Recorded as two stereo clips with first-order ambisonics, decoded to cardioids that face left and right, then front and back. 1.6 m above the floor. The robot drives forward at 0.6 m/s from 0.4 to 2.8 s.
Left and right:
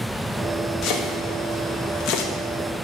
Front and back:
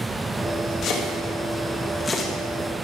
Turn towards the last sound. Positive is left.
turn(degrees=85)